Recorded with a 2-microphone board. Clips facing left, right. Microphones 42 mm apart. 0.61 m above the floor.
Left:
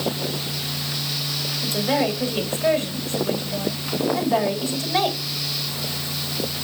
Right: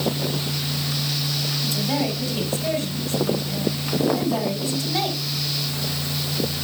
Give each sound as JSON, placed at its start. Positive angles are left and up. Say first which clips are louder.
{"t": 1.6, "sound": "a woman speaking", "louder": "left 4 dB", "side_deg": 45, "distance_m": 2.5}